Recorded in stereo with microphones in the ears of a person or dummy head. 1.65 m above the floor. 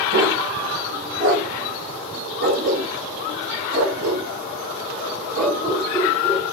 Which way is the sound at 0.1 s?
65° right (ahead or behind).